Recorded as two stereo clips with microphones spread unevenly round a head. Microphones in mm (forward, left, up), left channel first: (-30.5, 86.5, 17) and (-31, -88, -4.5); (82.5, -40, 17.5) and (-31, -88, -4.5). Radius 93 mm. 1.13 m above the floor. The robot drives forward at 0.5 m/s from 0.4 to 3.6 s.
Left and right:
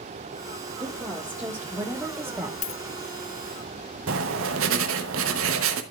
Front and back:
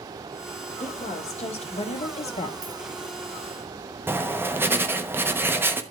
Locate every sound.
0.8 s a woman speaking: 10° right, 2.0 m; by 2.5 s 15° right, 1.2 m
2.6 s a dropped coin: 130° left, 0.6 m; by 2.8 s 135° left, 0.7 m
4.1 s writing: 85° right, 1.0 m